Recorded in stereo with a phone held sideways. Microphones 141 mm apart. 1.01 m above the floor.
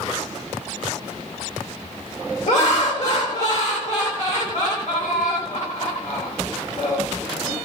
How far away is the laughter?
About 1.3 m.